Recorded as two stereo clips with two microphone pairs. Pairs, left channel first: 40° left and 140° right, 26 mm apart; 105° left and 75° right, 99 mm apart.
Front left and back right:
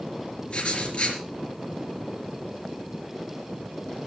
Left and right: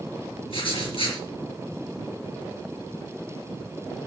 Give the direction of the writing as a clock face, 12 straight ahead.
9 o'clock.